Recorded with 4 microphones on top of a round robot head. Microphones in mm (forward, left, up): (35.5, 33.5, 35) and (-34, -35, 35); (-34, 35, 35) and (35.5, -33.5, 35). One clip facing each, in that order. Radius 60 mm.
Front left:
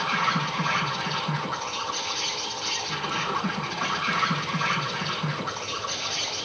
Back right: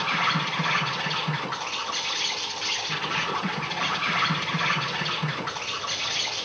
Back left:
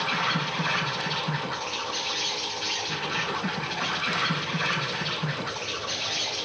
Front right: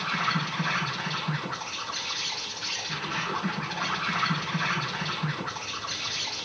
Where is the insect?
135° right, 5.5 m.